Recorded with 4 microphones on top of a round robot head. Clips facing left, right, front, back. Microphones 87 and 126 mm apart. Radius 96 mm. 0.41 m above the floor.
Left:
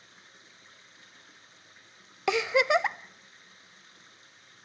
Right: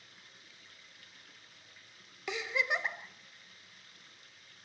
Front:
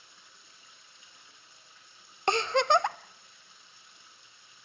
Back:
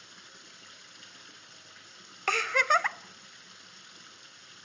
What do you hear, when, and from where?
0.0 s running water: 165° left, 1.7 m
2.3 s a giggle: 70° left, 0.6 m